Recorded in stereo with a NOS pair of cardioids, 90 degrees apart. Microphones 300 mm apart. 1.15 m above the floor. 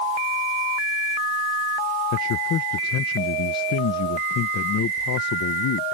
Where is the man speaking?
65° left.